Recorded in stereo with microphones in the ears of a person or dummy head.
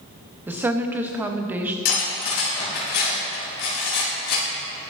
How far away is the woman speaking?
About 0.6 m.